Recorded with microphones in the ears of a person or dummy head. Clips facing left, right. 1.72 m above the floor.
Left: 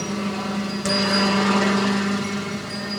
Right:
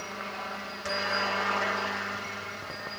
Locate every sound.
0.0 s a helicopter: 60° left (ahead or behind)